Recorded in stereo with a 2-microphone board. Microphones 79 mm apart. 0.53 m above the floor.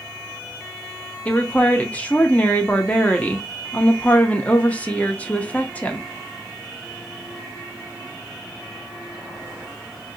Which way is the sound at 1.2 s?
20° left (ahead or behind).